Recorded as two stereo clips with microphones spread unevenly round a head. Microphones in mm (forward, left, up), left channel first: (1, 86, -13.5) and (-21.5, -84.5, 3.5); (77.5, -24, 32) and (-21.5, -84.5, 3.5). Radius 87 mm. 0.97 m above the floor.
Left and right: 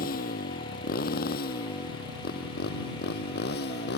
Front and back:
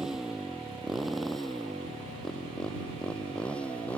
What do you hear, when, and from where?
0.0 s a motorcycle: 125° left; by 4.0 s 115° left